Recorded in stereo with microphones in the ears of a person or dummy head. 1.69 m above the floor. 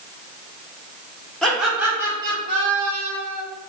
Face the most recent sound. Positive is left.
turn(degrees=-55)  # may be behind; listen again after turning